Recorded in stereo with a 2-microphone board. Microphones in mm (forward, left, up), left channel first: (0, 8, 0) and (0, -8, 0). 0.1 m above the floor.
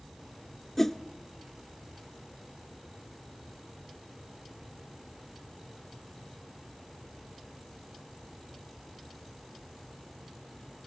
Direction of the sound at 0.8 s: 20° left (ahead or behind).